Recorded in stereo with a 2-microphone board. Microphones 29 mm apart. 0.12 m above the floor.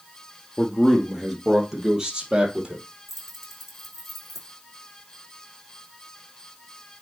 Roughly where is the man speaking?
Centre.